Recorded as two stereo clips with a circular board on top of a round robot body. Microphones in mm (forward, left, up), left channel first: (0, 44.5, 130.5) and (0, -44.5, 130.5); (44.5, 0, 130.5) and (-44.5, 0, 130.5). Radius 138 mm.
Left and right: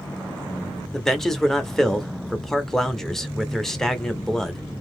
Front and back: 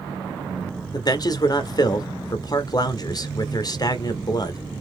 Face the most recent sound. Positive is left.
turn(degrees=5)